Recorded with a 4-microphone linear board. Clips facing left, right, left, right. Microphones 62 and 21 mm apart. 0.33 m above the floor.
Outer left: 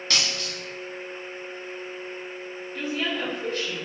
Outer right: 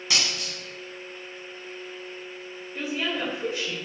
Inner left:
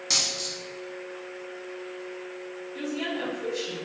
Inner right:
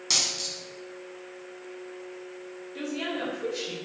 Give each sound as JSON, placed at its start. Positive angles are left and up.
{"t": 0.1, "sound": "a dropped coin", "side_deg": -10, "distance_m": 1.0}
{"t": 2.8, "sound": "a woman speaking", "side_deg": -15, "distance_m": 0.9}